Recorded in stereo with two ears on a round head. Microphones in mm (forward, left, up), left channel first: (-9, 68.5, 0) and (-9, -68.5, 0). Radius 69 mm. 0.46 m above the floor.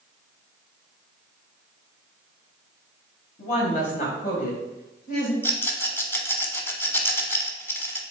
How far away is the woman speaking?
About 3 m.